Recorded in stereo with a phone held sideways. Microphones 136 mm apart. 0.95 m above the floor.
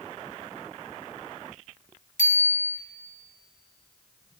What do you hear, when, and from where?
2.2 s a bicycle bell: 70° left (ahead or behind), 2.5 m